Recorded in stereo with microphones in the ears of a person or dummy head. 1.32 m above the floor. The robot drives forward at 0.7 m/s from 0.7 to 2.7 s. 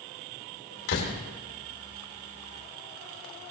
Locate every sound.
0.9 s a door slam: 80° left, 3 m